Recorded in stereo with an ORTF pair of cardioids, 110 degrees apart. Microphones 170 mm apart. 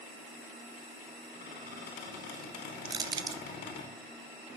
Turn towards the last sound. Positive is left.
turn(degrees=-25)